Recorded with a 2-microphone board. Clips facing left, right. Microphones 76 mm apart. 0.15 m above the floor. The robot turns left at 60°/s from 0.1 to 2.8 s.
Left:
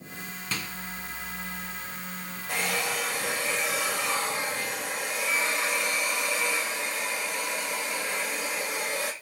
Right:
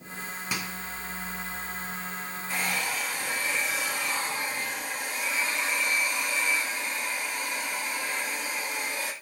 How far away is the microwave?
About 1.2 m.